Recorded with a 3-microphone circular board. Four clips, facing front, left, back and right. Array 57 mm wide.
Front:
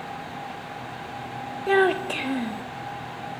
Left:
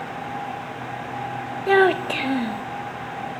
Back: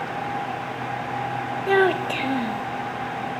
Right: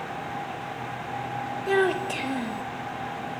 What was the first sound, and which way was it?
A child speaking, 100° left.